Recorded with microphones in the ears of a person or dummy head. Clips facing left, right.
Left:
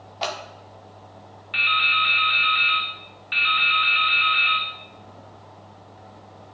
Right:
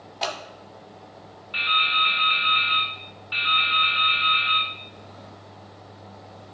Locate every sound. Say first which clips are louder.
0.2 s scissors: left 1 dB; 5° right (ahead or behind), 1.3 m
1.5 s dripping: left 1 dB; 30° left (ahead or behind), 1.2 m